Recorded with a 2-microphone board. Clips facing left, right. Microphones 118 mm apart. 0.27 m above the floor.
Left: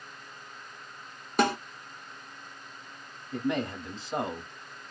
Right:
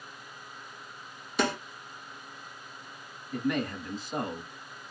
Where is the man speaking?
25° left (ahead or behind), 1.5 m.